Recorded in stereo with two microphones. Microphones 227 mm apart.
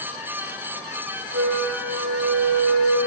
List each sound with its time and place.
1.3 s a flute: 75° right (ahead or behind), 5 m